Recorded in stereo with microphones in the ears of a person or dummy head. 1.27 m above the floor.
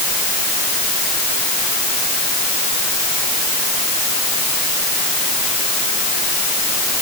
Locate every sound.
Only background noise.